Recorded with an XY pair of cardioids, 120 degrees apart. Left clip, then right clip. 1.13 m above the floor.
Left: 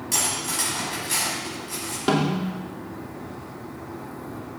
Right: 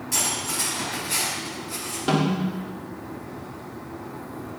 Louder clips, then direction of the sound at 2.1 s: Left 1 dB; 20° left.